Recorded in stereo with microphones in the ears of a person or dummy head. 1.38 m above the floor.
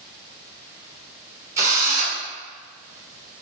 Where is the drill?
20° right (ahead or behind), 1.3 m.